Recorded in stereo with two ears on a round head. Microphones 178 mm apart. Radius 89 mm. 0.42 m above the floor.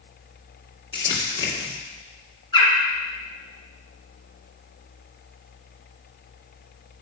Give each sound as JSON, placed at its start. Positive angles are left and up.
{"t": 0.9, "sound": "crumpling", "side_deg": 25, "distance_m": 2.5}
{"t": 2.5, "sound": "a bird", "side_deg": 20, "distance_m": 2.0}